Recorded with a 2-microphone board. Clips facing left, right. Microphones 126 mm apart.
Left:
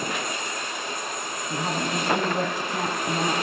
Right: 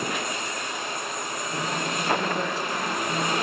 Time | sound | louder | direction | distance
1.5 | a woman speaking | left 3 dB | 55° left (ahead or behind) | 2 m